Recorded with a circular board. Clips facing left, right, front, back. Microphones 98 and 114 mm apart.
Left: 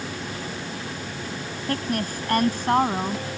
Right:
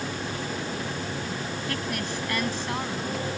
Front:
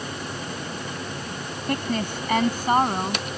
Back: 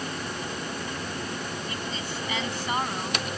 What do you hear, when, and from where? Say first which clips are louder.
1.7 s a woman speaking: left 8 dB, front 8 dB; 35° left; by 3.2 s 55° left